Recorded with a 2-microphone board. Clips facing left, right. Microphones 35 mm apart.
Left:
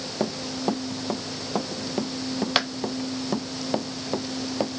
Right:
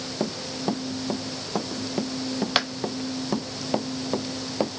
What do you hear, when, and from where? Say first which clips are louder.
0.2 s running footsteps: left 2 dB; 10° left (ahead or behind); by 4.7 s 5° right (ahead or behind)